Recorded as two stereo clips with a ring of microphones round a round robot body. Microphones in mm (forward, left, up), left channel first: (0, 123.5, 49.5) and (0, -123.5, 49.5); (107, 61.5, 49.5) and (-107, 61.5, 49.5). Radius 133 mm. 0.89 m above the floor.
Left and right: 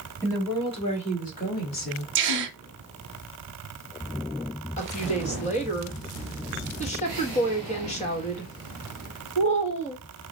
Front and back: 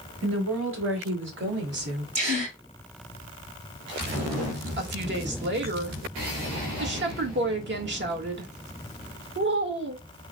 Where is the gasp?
120° right, 0.9 m.